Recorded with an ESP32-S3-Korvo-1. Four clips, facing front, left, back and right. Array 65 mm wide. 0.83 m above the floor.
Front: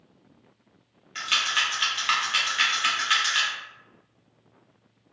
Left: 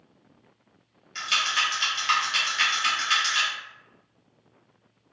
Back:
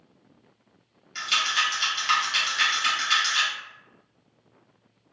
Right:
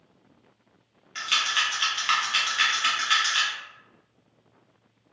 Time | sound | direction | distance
1.1 | a rattle | 40° right | 0.9 m